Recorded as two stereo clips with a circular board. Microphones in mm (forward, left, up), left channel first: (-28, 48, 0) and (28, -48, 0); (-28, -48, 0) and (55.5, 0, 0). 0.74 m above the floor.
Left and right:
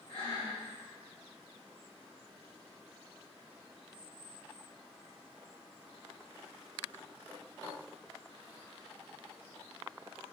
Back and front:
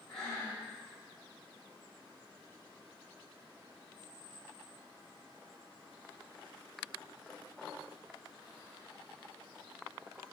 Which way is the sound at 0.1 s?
130° left.